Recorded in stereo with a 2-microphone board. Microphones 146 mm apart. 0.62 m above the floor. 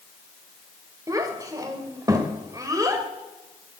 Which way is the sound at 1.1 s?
25° right (ahead or behind).